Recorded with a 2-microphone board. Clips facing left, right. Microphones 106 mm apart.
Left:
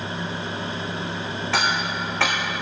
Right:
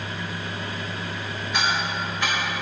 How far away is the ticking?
About 2 m.